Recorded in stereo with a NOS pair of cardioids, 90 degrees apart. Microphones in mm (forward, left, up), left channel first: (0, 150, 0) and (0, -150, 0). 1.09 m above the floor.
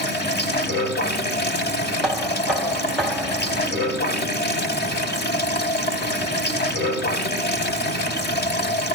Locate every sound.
0.0 s running water: 35° left, 3.5 m
2.0 s knocking: straight ahead, 2 m